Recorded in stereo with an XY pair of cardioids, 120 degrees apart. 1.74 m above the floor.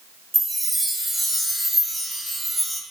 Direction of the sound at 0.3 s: 15° right.